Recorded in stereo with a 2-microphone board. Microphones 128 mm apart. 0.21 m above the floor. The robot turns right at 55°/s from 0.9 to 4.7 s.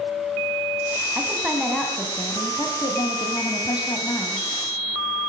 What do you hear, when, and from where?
1.1 s a woman speaking: 30° right, 1.6 m; by 4.4 s 150° left, 1.6 m